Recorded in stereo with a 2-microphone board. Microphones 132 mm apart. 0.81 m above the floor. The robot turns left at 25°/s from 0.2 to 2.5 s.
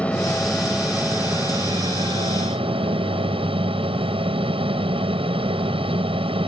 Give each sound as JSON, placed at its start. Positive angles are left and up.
{"t": 0.0, "sound": "an aircraft", "azimuth_deg": 10}